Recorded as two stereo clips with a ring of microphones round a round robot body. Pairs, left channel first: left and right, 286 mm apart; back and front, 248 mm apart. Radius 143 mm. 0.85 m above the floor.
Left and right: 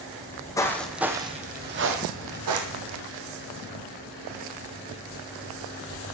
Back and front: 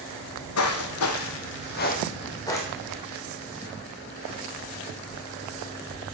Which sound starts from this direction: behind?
Footsteps, at 0.2 s.